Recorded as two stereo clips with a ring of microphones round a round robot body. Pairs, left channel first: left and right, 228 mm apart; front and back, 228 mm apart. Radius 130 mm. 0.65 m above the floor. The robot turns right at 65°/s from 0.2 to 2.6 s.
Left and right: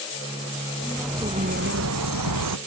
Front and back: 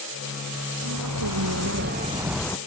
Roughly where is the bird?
Behind.